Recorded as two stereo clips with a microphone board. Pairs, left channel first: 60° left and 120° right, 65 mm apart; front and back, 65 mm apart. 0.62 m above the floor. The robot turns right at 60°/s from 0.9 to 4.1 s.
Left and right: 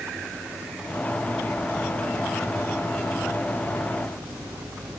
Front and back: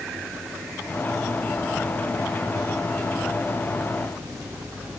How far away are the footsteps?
I don't hear footsteps.